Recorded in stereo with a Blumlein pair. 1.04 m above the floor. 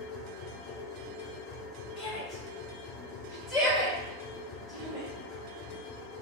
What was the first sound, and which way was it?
A machine running, 25° left.